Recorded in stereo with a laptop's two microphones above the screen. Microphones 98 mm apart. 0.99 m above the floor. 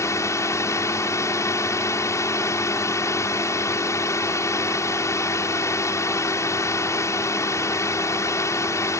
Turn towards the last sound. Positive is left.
turn(degrees=30)  # may be behind; listen again after turning